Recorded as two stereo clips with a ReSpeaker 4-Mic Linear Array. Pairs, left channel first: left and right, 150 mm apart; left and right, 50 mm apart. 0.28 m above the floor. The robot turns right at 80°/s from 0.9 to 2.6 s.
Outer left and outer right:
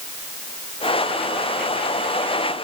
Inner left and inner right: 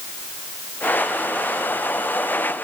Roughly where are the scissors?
No scissors in this recording.